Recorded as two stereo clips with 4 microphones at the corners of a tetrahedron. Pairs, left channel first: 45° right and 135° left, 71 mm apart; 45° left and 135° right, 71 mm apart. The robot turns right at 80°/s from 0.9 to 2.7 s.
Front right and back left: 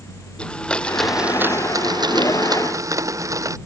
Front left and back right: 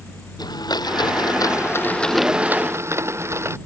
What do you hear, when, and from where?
0.4 s a blender: 30° left; by 3.6 s 175° left